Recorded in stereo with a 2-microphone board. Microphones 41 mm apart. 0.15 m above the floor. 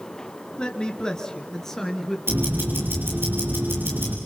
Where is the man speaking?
25° left (ahead or behind), 2.5 m; by 2.2 s 10° left (ahead or behind), 3.5 m.